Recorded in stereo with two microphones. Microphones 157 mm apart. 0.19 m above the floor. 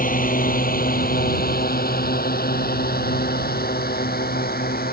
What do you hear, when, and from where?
0.0 s a drone: 65° left (ahead or behind); by 4.9 s 80° left